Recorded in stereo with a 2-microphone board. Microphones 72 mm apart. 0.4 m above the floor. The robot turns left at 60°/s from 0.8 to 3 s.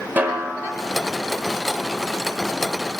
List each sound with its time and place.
0.2 s a snare drum: 25° right (ahead or behind), 1.0 m